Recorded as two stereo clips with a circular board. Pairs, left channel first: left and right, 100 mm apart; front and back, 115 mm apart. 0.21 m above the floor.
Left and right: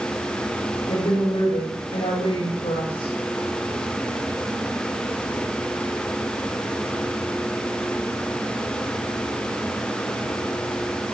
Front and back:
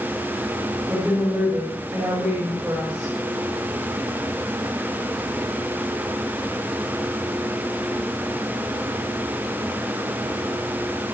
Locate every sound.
0.9 s a woman speaking: 105° left, 8 m